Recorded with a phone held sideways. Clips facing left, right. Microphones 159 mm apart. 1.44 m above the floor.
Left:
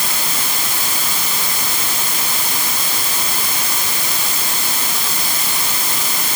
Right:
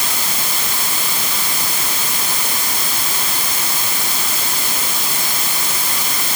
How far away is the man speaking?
I don't hear a man speaking.